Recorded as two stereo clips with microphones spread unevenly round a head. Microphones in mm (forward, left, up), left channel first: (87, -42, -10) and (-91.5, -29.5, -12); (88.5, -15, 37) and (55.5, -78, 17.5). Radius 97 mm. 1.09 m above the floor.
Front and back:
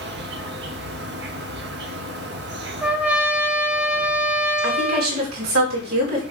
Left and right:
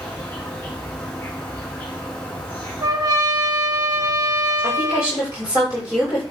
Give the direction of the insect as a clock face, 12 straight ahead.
7 o'clock.